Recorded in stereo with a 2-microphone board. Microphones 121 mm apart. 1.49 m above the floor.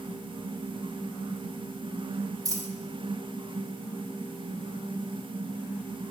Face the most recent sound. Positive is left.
turn(degrees=-30)  # may be behind; listen again after turning